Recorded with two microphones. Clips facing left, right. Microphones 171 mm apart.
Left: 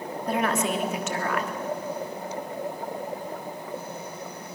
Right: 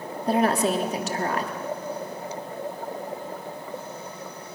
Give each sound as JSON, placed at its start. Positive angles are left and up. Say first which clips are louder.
{"t": 0.3, "sound": "a woman speaking", "louder": "right 4 dB", "side_deg": -35, "distance_m": 1.6}